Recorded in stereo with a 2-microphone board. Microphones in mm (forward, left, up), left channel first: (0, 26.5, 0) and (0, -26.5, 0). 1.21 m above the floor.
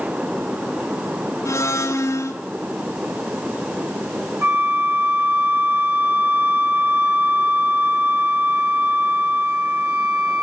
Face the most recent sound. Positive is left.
turn(degrees=-50)  # may be behind; listen again after turning